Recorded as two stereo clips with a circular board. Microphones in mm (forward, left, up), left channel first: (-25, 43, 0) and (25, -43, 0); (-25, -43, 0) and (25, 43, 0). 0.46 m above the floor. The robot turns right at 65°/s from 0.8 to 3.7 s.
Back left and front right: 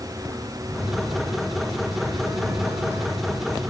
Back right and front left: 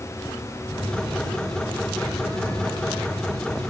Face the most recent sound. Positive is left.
turn(degrees=-10)